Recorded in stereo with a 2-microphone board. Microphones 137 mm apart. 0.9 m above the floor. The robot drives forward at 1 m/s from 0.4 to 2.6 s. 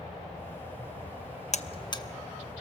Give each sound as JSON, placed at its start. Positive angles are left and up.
{"t": 1.5, "sound": "a buzzer", "side_deg": 55, "distance_m": 0.5}